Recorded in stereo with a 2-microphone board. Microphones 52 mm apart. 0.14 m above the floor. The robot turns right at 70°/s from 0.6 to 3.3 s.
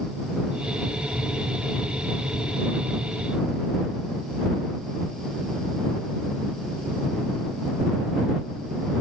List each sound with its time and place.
Only background noise.